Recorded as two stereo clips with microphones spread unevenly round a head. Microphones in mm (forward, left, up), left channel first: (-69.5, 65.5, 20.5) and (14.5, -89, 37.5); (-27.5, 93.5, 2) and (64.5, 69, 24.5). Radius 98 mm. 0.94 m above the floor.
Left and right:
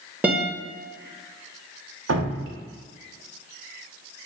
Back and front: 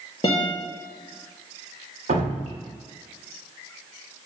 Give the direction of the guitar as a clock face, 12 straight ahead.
5 o'clock.